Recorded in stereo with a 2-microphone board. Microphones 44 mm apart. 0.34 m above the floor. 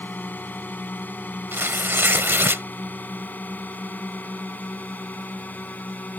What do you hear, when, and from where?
0.0 s a drone: 45° left (ahead or behind); by 6.2 s 40° left (ahead or behind)
1.5 s tearing paper: 60° right (ahead or behind)